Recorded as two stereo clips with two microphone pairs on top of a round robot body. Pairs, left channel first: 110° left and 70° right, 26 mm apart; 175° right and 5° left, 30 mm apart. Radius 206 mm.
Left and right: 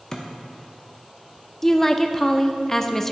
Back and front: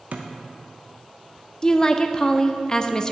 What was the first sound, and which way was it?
A thud, 40° left.